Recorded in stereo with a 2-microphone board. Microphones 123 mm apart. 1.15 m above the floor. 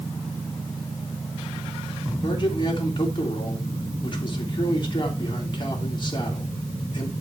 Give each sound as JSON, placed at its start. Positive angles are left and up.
{"t": 2.2, "sound": "a man speaking", "side_deg": 40, "distance_m": 3.0}